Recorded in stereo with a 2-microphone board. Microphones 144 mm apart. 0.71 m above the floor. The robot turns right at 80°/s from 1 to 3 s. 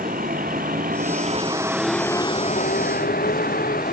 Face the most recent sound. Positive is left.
turn(degrees=90)